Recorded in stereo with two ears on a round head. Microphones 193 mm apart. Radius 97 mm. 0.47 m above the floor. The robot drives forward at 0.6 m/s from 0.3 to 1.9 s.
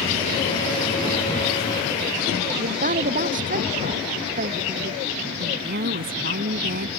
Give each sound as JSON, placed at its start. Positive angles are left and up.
{"t": 2.6, "sound": "a woman speaking", "side_deg": -40}
{"t": 5.4, "sound": "a woman speaking", "side_deg": -45}